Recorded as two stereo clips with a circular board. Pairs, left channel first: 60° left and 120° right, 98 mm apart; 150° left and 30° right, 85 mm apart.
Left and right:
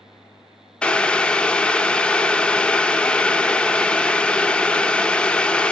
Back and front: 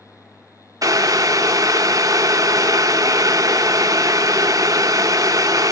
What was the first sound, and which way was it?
Boiling, 15° right.